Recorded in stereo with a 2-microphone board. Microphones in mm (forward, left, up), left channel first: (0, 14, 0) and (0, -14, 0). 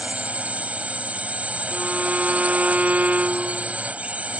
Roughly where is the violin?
Right.